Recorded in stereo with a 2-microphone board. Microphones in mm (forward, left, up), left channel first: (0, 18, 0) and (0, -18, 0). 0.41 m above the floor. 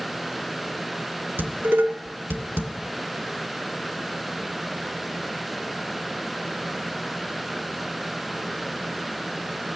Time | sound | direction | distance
1.4 | dishes clattering | 75° right (ahead or behind) | 2.5 m